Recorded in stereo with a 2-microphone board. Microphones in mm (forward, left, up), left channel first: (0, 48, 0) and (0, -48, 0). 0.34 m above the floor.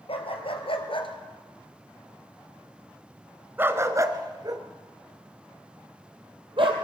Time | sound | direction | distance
0.1 | a dog barking | 75° left (ahead or behind) | 2.5 m